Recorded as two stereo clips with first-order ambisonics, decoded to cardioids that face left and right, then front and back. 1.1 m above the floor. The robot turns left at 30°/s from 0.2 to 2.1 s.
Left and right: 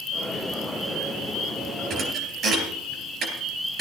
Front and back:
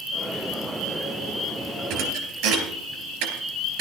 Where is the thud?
145° right, 3.5 m; by 3.8 s 150° right, 3.5 m.